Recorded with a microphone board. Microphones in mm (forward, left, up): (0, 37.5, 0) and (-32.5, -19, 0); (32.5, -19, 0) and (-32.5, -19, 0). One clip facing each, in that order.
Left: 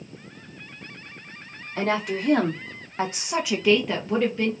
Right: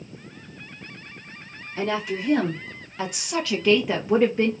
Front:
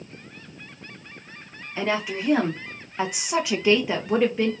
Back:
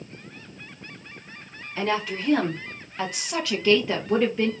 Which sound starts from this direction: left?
A woman speaking, at 1.8 s.